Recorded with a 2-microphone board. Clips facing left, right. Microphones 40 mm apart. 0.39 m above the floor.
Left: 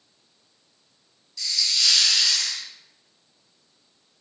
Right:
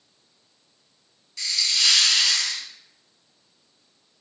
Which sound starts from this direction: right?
A hiss, at 1.4 s.